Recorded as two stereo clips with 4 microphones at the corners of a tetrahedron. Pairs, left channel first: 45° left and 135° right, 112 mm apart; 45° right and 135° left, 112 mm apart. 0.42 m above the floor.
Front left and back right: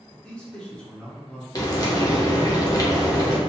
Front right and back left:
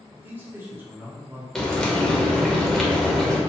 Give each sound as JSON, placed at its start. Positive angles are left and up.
{"t": 0.1, "sound": "a man speaking", "azimuth_deg": 115, "distance_m": 0.7}
{"t": 1.6, "sound": "frying", "azimuth_deg": 35, "distance_m": 0.6}